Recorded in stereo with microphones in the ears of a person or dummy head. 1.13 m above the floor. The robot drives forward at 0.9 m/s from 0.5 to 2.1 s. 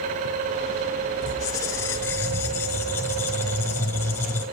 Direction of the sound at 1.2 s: 20° left (ahead or behind).